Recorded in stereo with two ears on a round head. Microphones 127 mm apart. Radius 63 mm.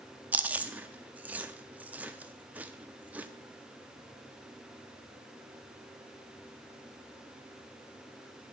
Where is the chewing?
10° right (ahead or behind), 0.6 m.